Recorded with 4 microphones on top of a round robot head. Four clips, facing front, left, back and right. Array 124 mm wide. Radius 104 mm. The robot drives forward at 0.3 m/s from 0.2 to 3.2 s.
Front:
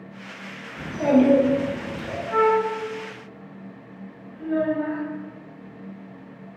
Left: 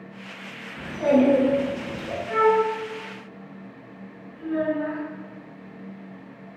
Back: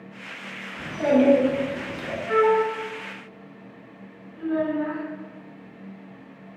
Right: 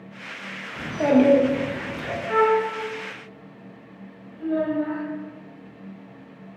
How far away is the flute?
About 1.2 m.